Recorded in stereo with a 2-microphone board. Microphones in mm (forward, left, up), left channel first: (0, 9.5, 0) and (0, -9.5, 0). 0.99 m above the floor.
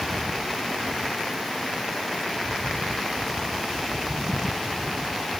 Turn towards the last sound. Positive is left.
No sound to turn to.